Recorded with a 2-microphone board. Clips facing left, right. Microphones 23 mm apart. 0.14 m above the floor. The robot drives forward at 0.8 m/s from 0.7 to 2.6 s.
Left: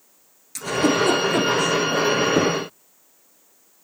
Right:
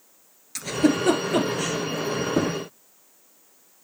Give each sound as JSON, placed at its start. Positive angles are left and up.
{"t": 0.6, "sound": "a giggle", "side_deg": -15, "distance_m": 1.5}
{"t": 2.4, "sound": "knocking", "side_deg": 25, "distance_m": 1.1}